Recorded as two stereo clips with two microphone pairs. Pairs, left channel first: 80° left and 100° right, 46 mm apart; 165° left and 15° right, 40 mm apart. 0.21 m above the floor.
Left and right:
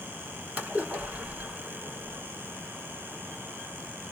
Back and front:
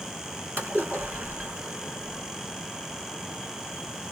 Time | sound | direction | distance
0.6 | a splash | 45° right | 2 m